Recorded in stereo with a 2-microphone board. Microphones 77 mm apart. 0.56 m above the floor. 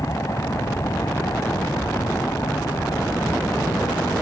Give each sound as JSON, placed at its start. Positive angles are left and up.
{"t": 0.0, "sound": "an aircraft", "side_deg": 45}